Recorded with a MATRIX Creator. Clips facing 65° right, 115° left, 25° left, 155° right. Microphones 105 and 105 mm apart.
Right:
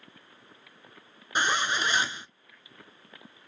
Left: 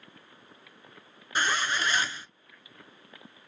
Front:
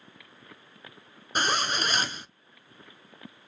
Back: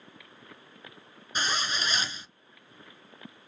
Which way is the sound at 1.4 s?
Straight ahead.